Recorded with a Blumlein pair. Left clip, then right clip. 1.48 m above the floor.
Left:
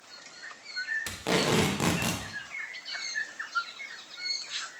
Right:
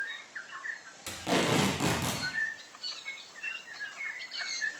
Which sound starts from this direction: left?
Tape being pulled, at 1.1 s.